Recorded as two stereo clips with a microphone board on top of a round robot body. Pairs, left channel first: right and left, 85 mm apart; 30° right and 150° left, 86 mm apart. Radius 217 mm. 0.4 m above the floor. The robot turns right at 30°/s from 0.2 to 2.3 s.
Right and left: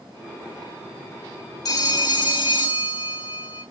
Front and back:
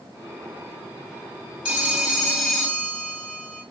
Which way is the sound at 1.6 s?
135° right.